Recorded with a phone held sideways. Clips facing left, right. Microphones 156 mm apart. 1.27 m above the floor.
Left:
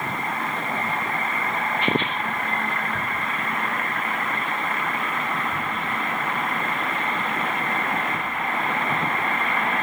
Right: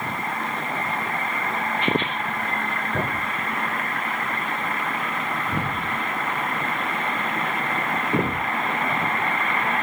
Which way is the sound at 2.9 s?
80° right.